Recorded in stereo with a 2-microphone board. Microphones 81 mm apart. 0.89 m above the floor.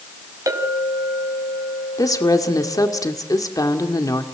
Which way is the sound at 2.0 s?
50° left (ahead or behind).